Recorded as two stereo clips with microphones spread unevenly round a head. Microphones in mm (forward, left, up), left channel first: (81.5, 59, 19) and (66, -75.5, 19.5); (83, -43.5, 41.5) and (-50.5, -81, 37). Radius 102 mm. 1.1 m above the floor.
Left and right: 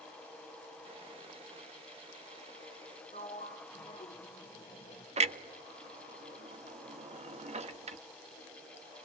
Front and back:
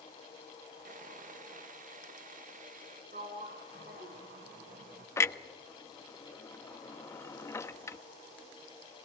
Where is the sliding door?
145° left, 2 m.